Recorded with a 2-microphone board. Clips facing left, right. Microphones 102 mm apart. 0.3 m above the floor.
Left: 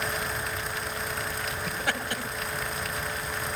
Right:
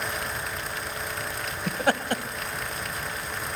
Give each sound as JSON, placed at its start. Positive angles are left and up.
{"t": 1.7, "sound": "laughter", "side_deg": -45, "distance_m": 1.4}